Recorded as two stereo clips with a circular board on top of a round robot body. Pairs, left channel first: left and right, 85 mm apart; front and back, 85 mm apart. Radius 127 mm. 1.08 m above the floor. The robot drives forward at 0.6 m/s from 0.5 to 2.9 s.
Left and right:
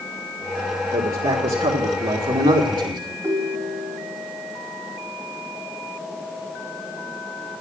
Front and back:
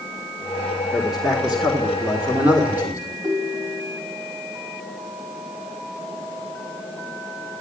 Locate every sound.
0.9 s a man speaking: 90° right, 3 m; by 3.1 s 115° right, 3.5 m
3.2 s a ringtone: 145° right, 3.5 m